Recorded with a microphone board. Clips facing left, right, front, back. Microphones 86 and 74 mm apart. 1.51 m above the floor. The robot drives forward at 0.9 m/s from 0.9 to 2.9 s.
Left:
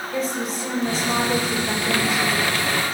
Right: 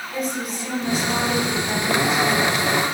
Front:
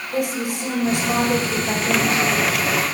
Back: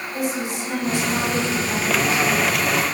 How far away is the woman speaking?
About 6 m.